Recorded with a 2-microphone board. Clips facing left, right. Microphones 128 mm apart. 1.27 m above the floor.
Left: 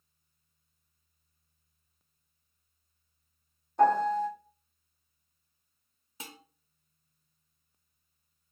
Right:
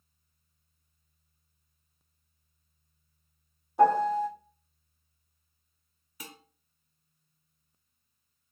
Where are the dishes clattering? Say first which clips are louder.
Even; 25° left (ahead or behind), 0.9 m.